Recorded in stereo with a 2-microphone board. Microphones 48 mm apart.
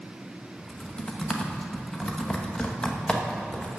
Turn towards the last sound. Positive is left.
turn(degrees=20)  # may be behind; listen again after turning